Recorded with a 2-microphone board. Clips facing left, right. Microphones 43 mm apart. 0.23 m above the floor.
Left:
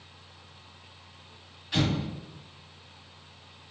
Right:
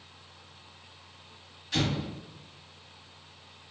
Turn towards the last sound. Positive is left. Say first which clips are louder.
# left 2 dB
turn(degrees=15)  # may be behind; listen again after turning